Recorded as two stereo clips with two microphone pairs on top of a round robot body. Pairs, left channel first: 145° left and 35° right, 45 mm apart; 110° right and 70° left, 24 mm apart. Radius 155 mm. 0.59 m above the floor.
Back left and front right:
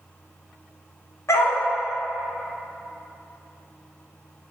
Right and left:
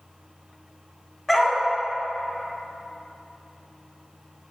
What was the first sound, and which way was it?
A dog barking, 170° left.